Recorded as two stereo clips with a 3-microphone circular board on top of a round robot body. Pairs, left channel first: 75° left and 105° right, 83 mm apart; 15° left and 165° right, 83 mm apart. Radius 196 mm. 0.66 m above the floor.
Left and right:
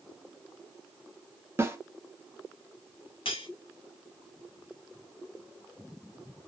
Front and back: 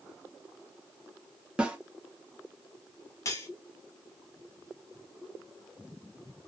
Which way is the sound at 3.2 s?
70° left.